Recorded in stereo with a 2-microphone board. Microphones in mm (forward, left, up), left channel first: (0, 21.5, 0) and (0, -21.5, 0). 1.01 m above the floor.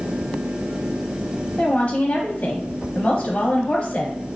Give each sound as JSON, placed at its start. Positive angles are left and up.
{"t": 1.6, "sound": "a woman speaking", "side_deg": 35, "distance_m": 0.6}